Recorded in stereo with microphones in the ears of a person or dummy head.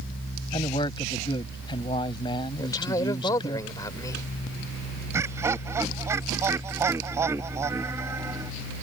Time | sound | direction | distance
0.5 | a man speaking | 30° left (ahead or behind) | ?
2.6 | a man speaking | 20° left (ahead or behind) | ?
5.1 | laughter | 15° right (ahead or behind) | ?